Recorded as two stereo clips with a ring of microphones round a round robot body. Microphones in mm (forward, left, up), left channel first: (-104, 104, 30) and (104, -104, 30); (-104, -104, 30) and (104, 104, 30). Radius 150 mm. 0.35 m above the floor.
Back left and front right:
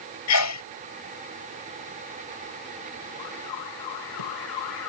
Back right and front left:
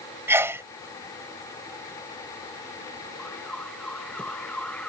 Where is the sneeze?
125° left.